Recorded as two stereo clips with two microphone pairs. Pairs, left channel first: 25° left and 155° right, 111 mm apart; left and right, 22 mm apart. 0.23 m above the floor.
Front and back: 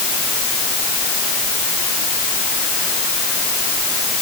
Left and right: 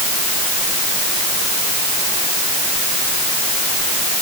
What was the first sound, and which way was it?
Only background noise.